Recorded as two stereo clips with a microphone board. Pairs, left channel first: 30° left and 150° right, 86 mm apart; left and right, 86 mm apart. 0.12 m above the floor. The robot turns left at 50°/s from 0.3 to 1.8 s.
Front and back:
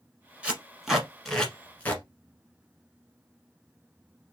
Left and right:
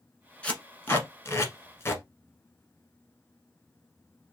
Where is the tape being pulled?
150° left, 1.2 m; by 2.0 s 80° left, 1.2 m.